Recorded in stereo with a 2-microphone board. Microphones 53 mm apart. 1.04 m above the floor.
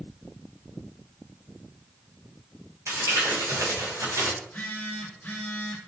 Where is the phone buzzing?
25° left (ahead or behind), 1.5 m.